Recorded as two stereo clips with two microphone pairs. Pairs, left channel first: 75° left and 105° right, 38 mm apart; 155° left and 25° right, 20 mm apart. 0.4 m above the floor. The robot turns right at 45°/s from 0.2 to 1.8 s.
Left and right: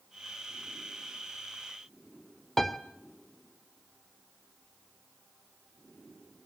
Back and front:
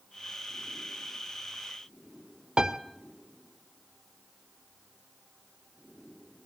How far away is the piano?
About 1.2 m.